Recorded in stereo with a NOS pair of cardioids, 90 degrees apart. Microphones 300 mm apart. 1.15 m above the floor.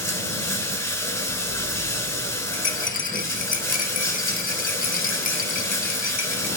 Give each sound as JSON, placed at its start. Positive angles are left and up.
{"t": 0.0, "sound": "running water", "azimuth_deg": 10, "distance_m": 4.0}
{"t": 2.5, "sound": "a rattle", "azimuth_deg": 30, "distance_m": 1.4}